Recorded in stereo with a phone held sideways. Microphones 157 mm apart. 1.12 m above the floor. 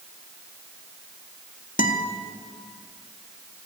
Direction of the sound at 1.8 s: 60° left (ahead or behind).